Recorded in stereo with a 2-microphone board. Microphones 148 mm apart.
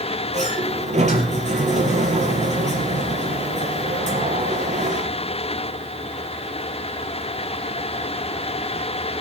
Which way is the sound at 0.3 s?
50° right (ahead or behind).